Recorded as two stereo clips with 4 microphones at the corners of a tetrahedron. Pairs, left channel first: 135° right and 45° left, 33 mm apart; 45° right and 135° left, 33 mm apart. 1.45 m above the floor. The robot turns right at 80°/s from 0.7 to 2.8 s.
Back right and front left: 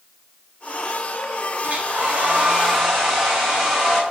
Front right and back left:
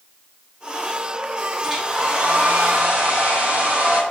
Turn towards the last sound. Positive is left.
turn(degrees=135)